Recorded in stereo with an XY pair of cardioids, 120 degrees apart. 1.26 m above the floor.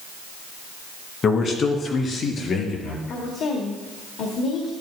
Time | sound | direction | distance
1.2 | a man speaking | 40° left | 1.8 m
3.1 | a woman speaking | 60° left | 2 m